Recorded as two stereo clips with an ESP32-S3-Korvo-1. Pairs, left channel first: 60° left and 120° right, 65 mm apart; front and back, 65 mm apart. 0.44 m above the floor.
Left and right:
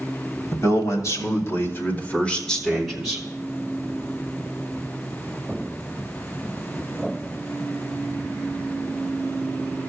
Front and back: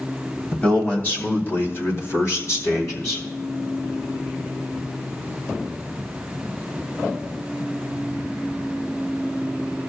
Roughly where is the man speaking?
Ahead left.